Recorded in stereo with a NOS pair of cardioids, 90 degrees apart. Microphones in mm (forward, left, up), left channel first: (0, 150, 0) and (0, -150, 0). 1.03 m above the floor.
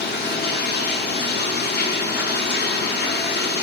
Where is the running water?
35° left, 1.3 m.